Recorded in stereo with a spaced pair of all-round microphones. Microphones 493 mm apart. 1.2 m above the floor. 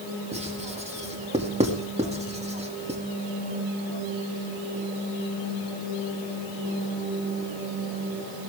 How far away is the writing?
About 2.5 m.